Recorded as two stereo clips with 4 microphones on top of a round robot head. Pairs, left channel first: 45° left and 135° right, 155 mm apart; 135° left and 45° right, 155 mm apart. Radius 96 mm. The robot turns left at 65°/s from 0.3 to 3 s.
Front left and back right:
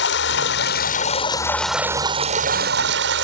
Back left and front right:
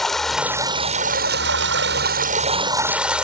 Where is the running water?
45° left; by 3.2 s 130° right.